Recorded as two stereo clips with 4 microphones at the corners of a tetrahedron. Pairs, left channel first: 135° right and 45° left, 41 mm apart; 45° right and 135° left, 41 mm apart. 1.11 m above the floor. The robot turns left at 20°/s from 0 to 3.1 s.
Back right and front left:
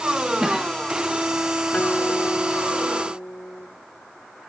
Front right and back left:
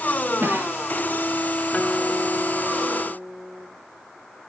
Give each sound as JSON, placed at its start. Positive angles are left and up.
{"t": 0.4, "sound": "a cough", "azimuth_deg": 120, "distance_m": 2.0}
{"t": 1.7, "sound": "a guitar", "azimuth_deg": -95, "distance_m": 2.5}